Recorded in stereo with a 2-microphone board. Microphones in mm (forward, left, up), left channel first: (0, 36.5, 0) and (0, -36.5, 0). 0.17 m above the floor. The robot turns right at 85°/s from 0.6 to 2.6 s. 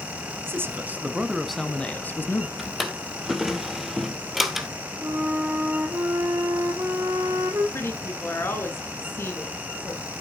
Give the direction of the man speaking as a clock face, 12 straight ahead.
3 o'clock.